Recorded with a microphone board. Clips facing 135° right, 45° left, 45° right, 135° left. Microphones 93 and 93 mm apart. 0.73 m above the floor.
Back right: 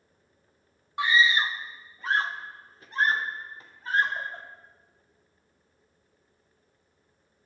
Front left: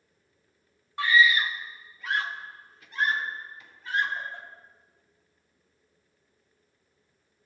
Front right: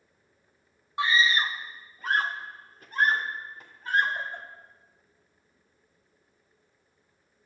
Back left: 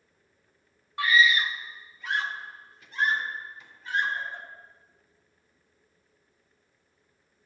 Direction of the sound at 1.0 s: 85° right.